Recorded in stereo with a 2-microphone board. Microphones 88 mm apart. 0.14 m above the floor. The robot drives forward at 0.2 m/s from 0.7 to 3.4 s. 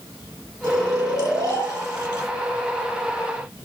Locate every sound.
0.6 s snoring: 35° left (ahead or behind), 0.9 m